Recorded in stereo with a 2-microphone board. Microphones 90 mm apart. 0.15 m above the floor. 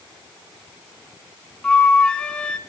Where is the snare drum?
I don't hear a snare drum.